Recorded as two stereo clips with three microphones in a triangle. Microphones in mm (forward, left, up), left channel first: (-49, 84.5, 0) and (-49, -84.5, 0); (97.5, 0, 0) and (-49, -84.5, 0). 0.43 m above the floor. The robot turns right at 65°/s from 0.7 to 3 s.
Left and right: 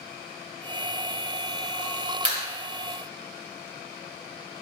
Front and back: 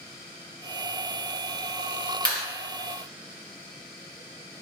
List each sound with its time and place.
2.2 s a clap: 130° right, 1.8 m; by 2.4 s 115° right, 1.8 m